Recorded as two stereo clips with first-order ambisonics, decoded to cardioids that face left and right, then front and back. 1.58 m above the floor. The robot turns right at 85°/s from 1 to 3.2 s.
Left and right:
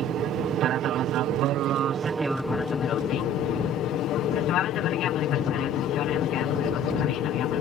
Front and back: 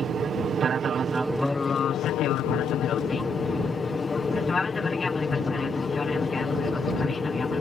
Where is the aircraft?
120° right; by 7.6 s 65° left.